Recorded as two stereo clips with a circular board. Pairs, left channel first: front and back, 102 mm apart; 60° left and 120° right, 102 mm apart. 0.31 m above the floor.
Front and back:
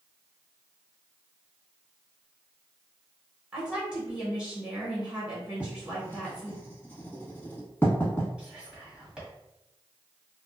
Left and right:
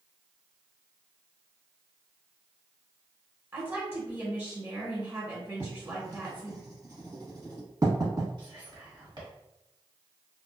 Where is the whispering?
105° right, 1.5 m.